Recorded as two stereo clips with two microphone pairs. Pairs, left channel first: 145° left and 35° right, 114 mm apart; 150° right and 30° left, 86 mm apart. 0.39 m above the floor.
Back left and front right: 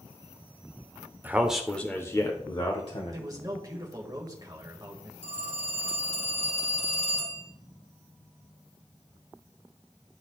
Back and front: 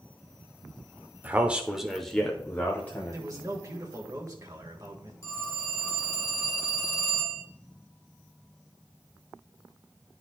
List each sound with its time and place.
1.2 s a man speaking: 10° left, 0.8 m; by 3.2 s 150° left, 1.3 m
3.1 s a man speaking: 10° left, 1.4 m
5.2 s a phone ringing: 155° left, 3.5 m